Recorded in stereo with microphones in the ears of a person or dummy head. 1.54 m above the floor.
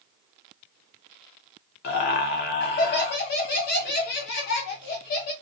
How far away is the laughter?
About 0.6 m.